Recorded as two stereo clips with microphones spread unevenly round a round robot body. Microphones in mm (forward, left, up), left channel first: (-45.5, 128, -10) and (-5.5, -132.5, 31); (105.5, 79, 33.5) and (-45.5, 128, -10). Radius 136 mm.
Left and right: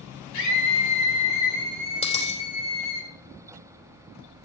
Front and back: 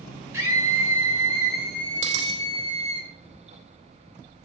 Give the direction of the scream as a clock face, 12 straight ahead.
9 o'clock.